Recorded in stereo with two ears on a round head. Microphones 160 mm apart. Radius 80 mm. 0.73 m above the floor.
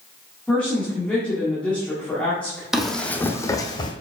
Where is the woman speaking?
5° left (ahead or behind), 1.9 m.